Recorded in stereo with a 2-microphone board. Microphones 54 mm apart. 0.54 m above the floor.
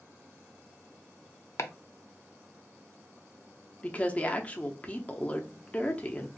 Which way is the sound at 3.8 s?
25° left (ahead or behind).